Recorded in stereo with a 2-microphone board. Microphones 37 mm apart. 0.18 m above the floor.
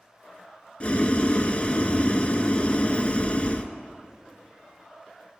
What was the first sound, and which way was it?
Boiling, 35° left (ahead or behind).